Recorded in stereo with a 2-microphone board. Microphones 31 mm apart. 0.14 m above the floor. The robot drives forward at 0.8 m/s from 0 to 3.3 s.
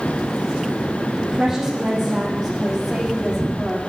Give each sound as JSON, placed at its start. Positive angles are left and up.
{"t": 1.2, "sound": "a woman speaking", "side_deg": -10, "distance_m": 5.5}